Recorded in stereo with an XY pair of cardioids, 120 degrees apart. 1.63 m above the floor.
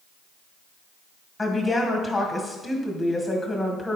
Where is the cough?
I don't hear a cough.